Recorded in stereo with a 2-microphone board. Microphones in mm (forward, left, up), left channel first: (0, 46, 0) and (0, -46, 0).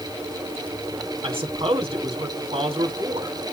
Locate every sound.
1.2 s a man speaking: 85° right, 3 m